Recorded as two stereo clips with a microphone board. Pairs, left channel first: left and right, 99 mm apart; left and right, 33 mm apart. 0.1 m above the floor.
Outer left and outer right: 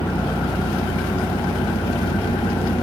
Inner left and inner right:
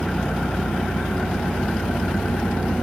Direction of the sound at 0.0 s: 80° left.